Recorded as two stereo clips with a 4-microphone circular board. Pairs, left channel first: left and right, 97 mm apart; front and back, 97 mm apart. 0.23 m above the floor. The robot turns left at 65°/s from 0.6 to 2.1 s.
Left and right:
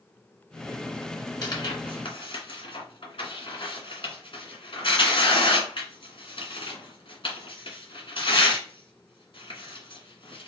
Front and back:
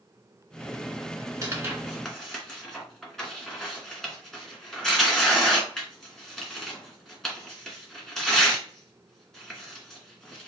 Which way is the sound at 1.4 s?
130° left.